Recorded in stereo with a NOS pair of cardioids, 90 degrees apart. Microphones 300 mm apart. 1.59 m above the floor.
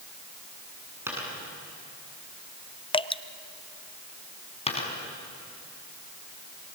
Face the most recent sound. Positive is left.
turn(degrees=20)